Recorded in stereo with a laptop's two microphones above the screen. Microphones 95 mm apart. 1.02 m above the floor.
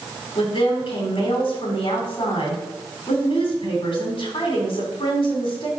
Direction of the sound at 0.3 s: 75° left (ahead or behind).